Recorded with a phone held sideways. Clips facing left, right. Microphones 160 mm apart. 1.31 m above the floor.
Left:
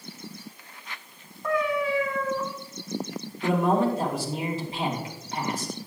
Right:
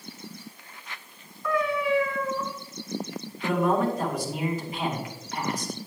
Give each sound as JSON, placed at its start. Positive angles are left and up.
{"t": 1.4, "sound": "a cat meowing", "side_deg": 45, "distance_m": 2.0}
{"t": 3.4, "sound": "a man speaking", "side_deg": 30, "distance_m": 2.5}